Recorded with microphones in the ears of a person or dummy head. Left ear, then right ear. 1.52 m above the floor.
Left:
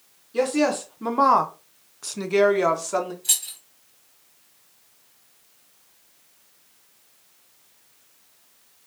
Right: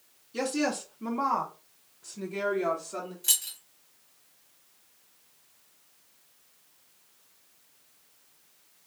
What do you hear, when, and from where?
0.3 s a woman speaking: 5° right (ahead or behind), 0.8 m; by 3.1 s 70° left (ahead or behind), 1.1 m
3.2 s keys jangling: 30° right (ahead or behind), 0.6 m